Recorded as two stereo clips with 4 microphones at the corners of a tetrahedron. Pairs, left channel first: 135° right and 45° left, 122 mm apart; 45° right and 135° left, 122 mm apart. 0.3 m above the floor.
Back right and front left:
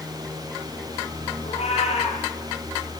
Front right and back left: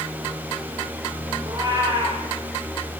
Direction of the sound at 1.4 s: 165° right.